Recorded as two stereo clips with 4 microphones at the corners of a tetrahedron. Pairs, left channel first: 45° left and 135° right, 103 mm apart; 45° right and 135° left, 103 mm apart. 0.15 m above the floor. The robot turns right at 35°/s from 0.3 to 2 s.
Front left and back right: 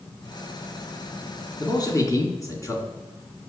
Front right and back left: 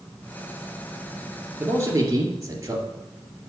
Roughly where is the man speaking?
Left.